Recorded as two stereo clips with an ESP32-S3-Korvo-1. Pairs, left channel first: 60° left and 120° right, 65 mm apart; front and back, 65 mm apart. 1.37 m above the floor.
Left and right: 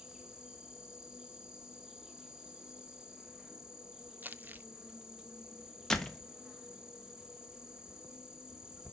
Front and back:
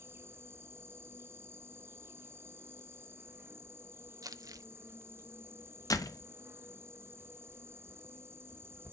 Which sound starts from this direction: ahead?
A door slam, at 5.9 s.